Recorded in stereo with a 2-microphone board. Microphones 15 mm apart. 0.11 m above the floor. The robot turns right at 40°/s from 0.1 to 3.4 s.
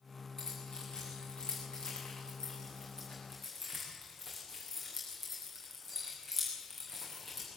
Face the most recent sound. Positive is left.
turn(degrees=25)  # may be behind; listen again after turning